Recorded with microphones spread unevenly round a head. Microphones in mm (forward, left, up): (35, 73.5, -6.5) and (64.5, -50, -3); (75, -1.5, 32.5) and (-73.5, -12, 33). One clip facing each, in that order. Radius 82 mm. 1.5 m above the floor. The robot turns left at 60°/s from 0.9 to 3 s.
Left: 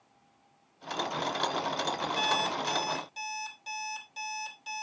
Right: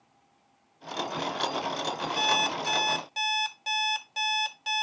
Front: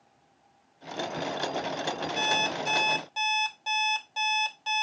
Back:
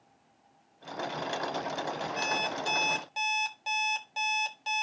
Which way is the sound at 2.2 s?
45° right.